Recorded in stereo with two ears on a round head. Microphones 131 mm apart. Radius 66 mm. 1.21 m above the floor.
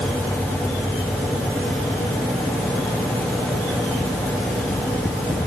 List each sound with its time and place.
Only background noise.